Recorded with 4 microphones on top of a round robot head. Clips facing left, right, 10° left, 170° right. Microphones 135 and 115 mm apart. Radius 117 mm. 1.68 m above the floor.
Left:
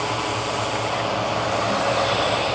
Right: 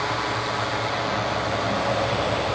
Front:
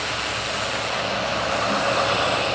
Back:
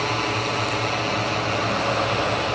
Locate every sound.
0.0 s a drone: 165° left; by 2.5 s 170° left